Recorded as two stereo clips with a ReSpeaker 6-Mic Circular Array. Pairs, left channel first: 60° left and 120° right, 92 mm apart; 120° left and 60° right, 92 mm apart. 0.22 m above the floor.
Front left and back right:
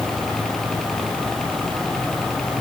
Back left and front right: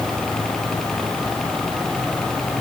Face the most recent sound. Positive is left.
No sound to turn to.